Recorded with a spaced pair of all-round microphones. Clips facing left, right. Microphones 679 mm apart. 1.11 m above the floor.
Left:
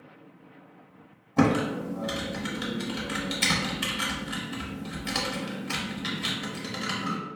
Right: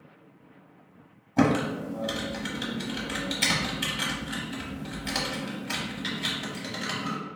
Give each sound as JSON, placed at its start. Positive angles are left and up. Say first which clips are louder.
{"t": 1.4, "sound": "typing on a keyboard", "louder": "even", "side_deg": 0, "distance_m": 0.8}